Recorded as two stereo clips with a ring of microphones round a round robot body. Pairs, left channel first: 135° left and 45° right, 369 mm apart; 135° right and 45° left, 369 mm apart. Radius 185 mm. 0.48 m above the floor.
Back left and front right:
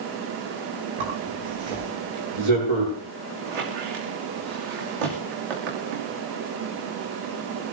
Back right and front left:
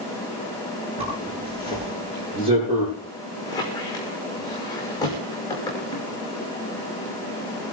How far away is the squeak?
About 5 m.